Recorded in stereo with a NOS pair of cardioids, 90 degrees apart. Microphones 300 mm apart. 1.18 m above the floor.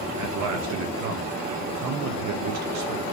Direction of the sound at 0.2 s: 70° right.